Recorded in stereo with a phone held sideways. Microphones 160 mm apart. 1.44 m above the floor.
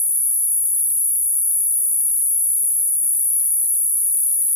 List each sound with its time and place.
0.0 s an insect: 5° right (ahead or behind), 0.8 m